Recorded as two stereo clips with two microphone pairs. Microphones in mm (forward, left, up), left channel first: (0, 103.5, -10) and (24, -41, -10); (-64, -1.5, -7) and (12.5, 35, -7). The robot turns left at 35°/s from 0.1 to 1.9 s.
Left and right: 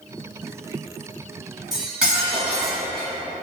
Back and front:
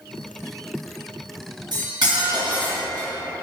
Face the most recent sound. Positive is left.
turn(degrees=5)